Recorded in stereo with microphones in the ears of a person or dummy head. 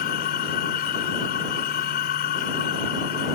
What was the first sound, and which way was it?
A machine running, 45° left (ahead or behind).